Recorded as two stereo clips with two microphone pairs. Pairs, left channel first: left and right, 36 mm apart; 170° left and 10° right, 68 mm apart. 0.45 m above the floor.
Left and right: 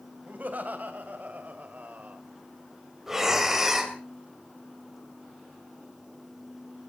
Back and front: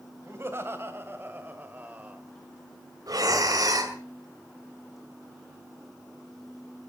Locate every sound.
0.3 s laughter: 60° right, 3 m; by 2.2 s 75° right, 1.8 m
3.1 s breathing: 10° right, 2.5 m